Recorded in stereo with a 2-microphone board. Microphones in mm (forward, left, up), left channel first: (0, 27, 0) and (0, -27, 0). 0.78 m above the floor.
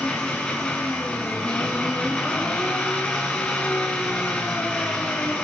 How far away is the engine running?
About 8.5 m.